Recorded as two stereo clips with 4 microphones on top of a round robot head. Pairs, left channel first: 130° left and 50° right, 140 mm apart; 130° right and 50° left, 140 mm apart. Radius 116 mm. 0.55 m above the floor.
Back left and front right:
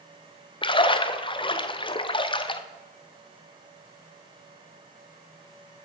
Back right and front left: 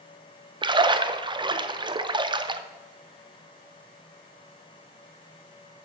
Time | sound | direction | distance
0.6 | a splash | 90° left | 0.8 m